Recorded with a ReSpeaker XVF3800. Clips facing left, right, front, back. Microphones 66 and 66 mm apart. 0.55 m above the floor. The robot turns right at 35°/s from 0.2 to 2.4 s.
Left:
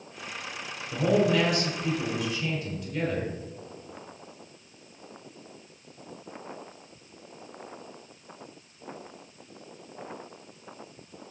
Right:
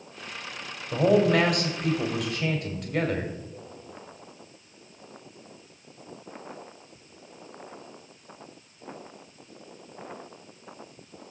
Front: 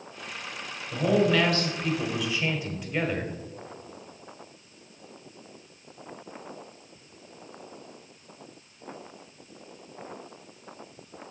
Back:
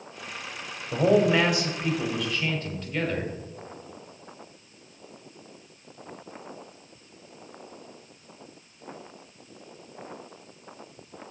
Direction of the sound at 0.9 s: 130° right.